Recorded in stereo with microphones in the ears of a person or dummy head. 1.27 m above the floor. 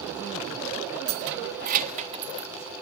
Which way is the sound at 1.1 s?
75° right (ahead or behind).